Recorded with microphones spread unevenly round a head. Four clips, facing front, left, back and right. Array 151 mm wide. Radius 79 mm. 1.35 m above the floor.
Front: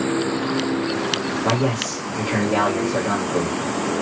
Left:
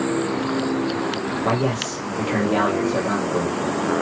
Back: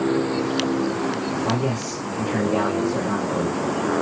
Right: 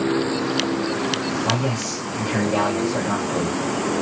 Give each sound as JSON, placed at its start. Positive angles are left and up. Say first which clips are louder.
{"t": 1.4, "sound": "a man speaking", "louder": "left 2 dB, front 2 dB", "azimuth_deg": 35, "distance_m": 1.6}